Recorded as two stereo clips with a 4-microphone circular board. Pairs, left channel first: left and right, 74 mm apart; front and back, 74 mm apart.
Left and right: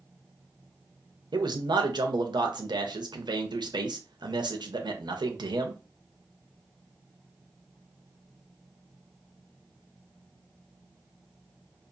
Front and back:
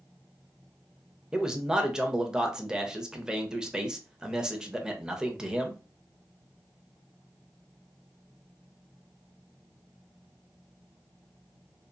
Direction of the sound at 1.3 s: 100° right.